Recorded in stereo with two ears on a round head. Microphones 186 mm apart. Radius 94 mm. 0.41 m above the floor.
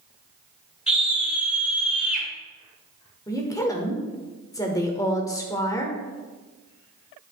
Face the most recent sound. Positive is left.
turn(degrees=15)  # may be behind; listen again after turning